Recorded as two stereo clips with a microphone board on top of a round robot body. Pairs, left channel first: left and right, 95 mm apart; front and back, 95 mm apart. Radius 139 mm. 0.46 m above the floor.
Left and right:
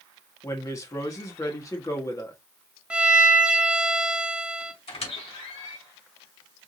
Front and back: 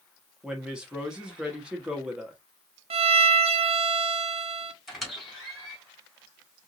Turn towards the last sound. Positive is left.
turn(degrees=90)